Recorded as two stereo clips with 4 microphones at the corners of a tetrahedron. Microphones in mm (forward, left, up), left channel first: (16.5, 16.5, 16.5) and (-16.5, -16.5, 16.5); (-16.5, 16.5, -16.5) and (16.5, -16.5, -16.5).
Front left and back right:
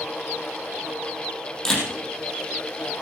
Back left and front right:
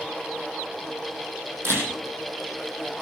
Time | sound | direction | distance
1.6 | a camera shutter | 35° right | 4.5 m